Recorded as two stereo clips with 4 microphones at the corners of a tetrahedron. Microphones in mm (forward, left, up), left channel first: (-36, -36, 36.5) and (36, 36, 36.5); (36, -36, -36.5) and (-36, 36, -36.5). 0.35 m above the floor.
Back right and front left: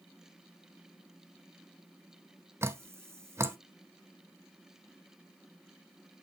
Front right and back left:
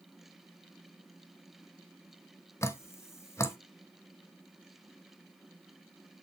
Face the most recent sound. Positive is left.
turn(degrees=0)